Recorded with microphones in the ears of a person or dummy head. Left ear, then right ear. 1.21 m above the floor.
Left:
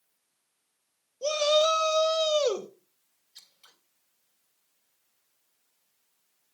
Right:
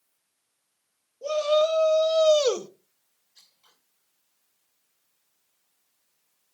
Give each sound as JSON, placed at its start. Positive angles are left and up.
{"t": 1.2, "sound": "a shout", "side_deg": 45, "distance_m": 1.9}
{"t": 3.4, "sound": "scissors", "side_deg": 50, "distance_m": 2.5}